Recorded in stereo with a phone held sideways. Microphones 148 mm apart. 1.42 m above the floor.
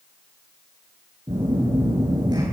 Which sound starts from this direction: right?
A phone buzzing, at 1.3 s.